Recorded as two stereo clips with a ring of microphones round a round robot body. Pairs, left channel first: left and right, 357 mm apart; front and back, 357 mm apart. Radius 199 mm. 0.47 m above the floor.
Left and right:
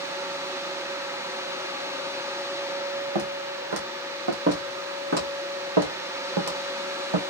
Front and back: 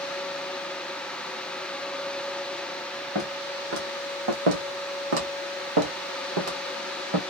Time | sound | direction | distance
3.1 | footsteps | 110° right | 1.7 m
4.5 | footsteps | 165° right | 1.9 m